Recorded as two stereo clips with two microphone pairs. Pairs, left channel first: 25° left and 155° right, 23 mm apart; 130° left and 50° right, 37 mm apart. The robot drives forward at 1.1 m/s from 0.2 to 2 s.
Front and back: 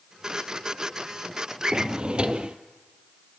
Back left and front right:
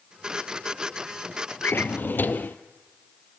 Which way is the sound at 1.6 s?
145° left.